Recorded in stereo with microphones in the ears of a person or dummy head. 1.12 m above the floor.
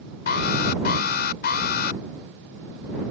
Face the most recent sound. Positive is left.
turn(degrees=55)  # may be behind; listen again after turning